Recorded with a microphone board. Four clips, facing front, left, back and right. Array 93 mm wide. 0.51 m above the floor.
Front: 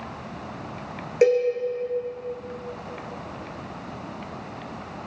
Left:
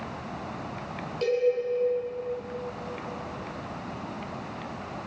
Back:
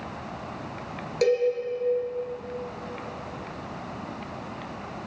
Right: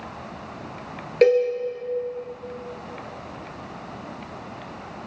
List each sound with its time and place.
1.2 s a cowbell: 65° right, 3 m